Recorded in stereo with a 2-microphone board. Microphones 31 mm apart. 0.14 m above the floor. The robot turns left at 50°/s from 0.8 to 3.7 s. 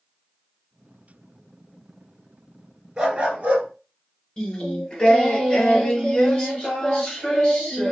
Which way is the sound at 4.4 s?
20° left (ahead or behind).